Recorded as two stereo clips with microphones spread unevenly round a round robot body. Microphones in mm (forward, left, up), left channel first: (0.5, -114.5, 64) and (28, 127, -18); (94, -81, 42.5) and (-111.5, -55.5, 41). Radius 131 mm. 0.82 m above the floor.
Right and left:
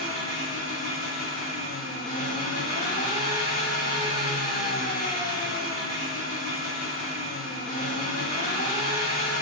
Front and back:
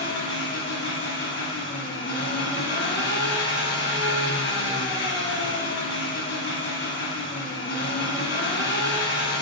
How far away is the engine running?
About 0.9 m.